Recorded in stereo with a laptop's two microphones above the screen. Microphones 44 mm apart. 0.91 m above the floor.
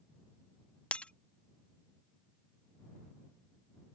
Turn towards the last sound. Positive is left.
turn(degrees=25)  # may be behind; listen again after turning